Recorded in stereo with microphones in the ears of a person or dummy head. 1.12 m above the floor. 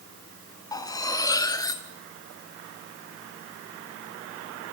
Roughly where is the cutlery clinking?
Centre.